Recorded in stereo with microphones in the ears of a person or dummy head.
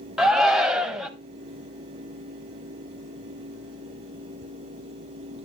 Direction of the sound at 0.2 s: Centre (ahead or behind).